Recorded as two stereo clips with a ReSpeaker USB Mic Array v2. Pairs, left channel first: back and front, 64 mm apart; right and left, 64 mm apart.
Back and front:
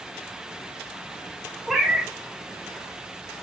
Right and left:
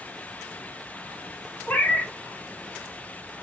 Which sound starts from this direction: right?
A cat meowing, at 1.7 s.